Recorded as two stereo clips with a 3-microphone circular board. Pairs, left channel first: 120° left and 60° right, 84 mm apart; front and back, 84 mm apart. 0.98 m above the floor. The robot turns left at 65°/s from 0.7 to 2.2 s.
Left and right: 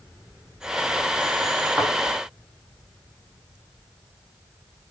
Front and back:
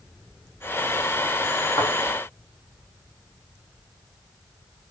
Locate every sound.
1.8 s a thud: 20° left, 1.3 m; by 1.9 s 10° left, 1.3 m